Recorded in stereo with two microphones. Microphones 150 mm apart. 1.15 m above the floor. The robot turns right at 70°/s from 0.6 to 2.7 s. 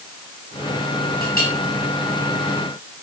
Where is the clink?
75° left (ahead or behind), 5.5 m; by 1.5 s 80° left, 5.5 m.